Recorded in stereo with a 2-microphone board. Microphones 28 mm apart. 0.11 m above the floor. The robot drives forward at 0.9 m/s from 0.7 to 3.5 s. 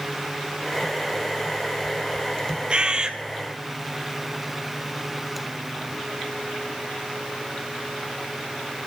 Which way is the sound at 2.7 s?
35° right (ahead or behind).